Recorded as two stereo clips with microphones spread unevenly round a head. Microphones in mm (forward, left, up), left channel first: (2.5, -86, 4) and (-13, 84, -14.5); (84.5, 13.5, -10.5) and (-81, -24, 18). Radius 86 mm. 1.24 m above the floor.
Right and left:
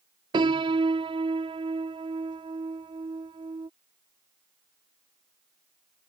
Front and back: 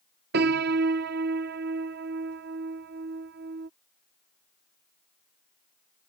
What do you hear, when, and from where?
0.3 s a piano: 160° left